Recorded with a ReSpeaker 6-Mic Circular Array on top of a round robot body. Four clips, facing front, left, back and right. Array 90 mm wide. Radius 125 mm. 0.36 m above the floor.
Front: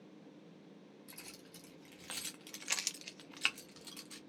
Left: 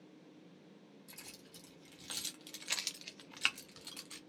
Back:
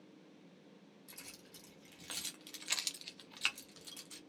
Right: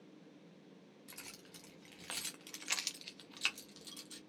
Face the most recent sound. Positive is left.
turn(degrees=70)